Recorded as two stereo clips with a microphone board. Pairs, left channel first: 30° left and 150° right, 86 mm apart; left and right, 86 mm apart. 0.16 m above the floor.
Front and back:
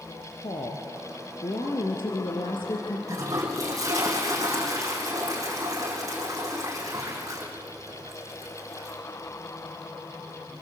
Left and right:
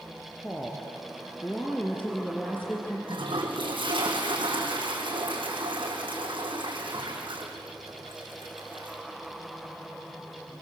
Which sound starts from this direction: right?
A toilet flushing, at 3.1 s.